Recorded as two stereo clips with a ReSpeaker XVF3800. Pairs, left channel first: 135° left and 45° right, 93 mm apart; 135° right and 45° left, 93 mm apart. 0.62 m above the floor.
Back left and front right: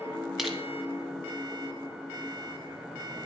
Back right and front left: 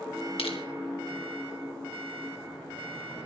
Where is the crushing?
135° right, 2 m.